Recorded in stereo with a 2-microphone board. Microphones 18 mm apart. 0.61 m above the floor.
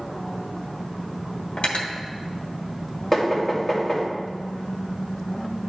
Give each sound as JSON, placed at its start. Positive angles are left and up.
{"t": 1.6, "sound": "cutlery clinking", "side_deg": 70, "distance_m": 1.3}
{"t": 3.1, "sound": "knocking", "side_deg": 20, "distance_m": 2.5}